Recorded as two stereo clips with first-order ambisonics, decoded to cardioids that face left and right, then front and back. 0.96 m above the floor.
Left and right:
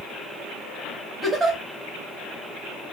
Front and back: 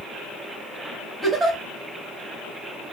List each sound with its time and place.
1.2 s a giggle: 140° right, 0.8 m